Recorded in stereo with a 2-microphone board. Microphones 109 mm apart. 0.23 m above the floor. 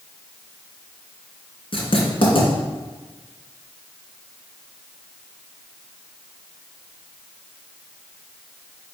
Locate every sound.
1.7 s writing: 60° left (ahead or behind), 3 m